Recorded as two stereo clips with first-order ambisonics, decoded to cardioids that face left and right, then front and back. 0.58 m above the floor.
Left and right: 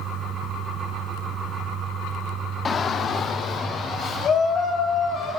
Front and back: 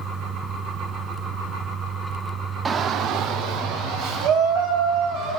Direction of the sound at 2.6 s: 130° left.